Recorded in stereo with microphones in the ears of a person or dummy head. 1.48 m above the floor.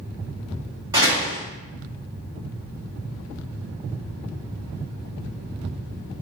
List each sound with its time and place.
0.9 s a door slam: 15° right (ahead or behind), 1.2 m